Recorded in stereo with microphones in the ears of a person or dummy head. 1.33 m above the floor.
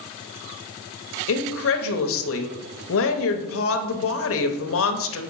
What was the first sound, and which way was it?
A woman speaking, 60° left (ahead or behind).